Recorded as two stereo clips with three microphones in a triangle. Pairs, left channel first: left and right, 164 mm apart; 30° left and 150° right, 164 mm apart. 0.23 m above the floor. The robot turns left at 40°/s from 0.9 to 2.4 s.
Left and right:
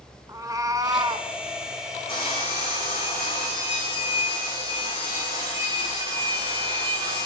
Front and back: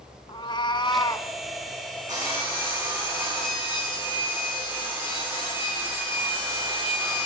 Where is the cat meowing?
25° right, 1.2 m; by 1.3 s 40° right, 1.2 m.